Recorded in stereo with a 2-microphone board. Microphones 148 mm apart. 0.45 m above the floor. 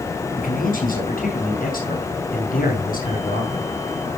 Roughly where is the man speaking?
Left.